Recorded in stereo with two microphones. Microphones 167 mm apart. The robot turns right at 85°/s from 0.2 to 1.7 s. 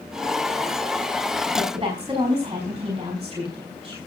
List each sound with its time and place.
1.5 s a woman speaking: 45° right (ahead or behind), 4.5 m; by 4.0 s 25° right (ahead or behind), 4.5 m